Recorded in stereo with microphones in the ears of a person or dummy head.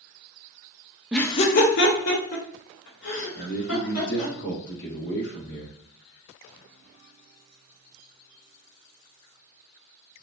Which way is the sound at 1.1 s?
5° right (ahead or behind).